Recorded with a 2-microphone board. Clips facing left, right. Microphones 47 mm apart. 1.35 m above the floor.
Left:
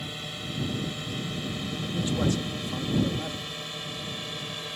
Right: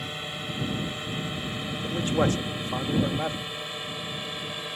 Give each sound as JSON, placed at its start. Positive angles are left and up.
{"t": 0.0, "sound": "a drone", "side_deg": -20}
{"t": 1.8, "sound": "a man speaking", "side_deg": -45}